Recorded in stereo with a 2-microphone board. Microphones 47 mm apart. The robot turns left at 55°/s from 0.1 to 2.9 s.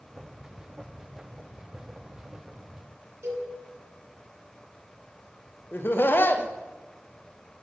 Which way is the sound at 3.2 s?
70° right (ahead or behind).